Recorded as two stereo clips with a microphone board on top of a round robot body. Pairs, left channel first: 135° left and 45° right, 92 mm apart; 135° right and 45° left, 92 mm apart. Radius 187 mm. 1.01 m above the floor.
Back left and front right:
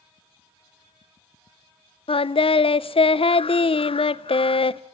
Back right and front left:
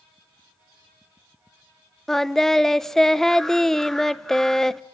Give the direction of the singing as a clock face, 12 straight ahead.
7 o'clock.